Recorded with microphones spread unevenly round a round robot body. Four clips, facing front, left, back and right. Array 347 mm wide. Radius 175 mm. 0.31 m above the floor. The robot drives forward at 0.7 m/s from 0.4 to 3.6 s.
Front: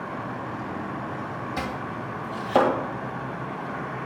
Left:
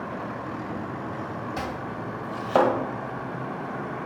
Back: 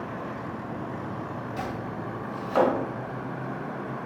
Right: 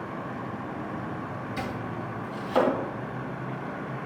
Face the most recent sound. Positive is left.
turn(degrees=95)